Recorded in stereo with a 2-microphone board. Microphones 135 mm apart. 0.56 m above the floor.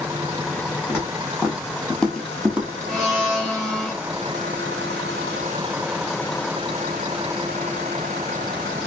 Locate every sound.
0.9 s footsteps: 20° left (ahead or behind), 1.5 m; by 2.7 s 15° right (ahead or behind), 0.5 m
2.9 s a blender: 5° left (ahead or behind), 1.3 m